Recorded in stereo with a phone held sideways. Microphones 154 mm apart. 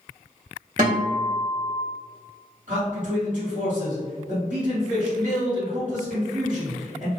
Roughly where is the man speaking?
Right.